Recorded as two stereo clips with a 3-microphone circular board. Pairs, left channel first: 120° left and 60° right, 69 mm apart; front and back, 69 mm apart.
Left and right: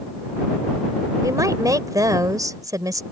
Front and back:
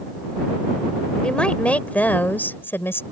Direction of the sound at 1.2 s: 75° right.